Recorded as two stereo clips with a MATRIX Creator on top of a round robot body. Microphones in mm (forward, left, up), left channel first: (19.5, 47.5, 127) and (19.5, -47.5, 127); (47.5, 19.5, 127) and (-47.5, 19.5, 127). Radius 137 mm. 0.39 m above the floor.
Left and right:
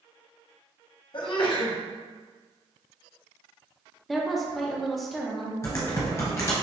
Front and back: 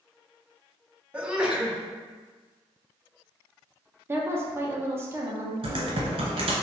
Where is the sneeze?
100° left, 1.2 m.